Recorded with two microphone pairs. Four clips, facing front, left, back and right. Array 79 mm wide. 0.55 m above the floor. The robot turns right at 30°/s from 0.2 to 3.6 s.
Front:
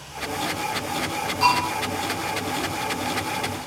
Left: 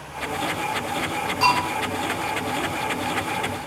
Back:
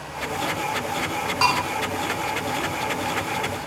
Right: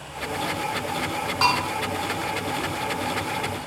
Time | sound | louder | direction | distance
1.4 | a bell | left 2 dB, front 2 dB | 145° right | 5 m